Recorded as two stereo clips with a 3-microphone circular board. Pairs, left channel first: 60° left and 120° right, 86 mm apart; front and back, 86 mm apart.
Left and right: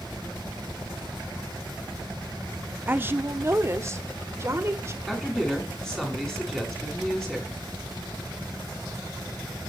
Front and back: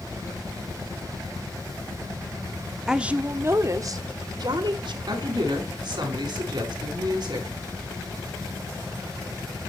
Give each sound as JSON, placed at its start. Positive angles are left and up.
{"t": 2.9, "sound": "a woman speaking", "azimuth_deg": -105, "distance_m": 0.8}
{"t": 5.1, "sound": "a woman speaking", "azimuth_deg": 145, "distance_m": 5.0}